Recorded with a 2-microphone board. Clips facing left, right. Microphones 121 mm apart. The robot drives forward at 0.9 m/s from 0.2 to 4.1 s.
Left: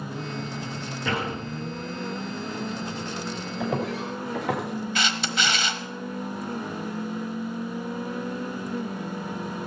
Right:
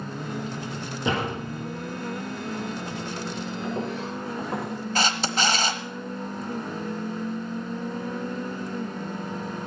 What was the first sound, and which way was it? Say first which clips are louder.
A door slam: right 2 dB; 20° right (ahead or behind).